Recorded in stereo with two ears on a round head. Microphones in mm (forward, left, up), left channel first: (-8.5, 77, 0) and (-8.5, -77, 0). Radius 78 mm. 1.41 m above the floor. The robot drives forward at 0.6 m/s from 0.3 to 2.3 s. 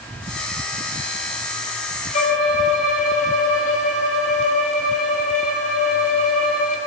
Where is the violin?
45° left (ahead or behind), 7 m.